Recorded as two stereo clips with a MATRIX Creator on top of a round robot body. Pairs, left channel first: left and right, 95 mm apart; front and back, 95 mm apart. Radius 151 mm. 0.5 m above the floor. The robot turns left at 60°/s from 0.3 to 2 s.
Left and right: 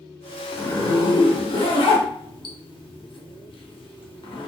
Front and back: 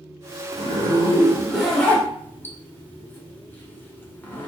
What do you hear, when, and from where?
0.5 s a zipper: 160° left, 0.8 m; by 4.5 s 70° left, 0.8 m